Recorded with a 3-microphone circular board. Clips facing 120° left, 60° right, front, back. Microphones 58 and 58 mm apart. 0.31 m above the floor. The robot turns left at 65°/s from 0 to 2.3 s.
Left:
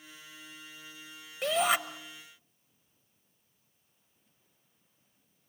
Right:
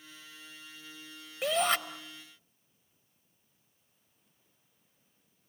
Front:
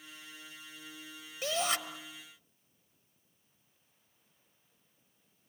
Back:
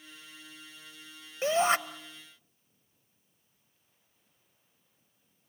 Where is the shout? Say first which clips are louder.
Left 1 dB, back 8 dB; 145° right, 1.1 m; by 1.8 s 170° right, 1.1 m.